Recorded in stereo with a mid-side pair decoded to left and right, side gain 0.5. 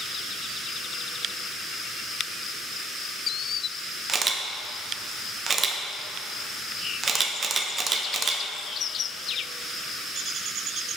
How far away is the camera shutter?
About 0.8 m.